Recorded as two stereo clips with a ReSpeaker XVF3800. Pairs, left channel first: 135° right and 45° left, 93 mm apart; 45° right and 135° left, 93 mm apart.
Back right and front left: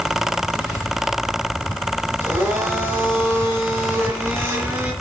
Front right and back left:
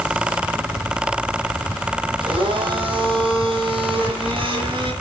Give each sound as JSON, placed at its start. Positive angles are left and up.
{"t": 2.2, "sound": "a blender", "azimuth_deg": 110, "distance_m": 5.0}